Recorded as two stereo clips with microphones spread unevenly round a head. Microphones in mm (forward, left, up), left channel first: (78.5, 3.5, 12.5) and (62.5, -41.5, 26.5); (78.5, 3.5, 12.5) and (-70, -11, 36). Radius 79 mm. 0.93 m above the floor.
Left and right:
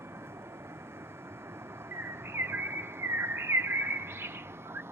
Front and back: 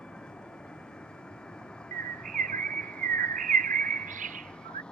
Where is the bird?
160° right.